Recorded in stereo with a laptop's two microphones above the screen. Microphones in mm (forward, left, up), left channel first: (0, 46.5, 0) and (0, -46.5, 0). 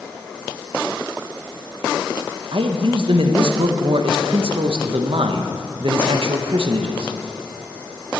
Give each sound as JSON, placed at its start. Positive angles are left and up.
{"t": 2.5, "sound": "a man speaking", "side_deg": -65, "distance_m": 0.6}